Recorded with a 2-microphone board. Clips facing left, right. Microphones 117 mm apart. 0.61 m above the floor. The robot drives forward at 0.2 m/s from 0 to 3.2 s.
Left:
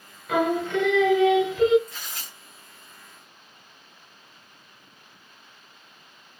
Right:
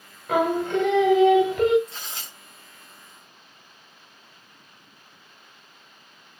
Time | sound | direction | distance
0.3 | singing | 40° right (ahead or behind) | 1.0 m
1.9 | tearing paper | 30° right (ahead or behind) | 1.2 m